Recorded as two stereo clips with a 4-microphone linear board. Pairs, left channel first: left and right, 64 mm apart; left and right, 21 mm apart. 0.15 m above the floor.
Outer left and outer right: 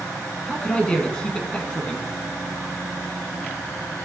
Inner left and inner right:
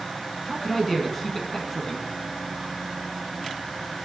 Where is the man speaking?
15° left (ahead or behind), 1.5 m.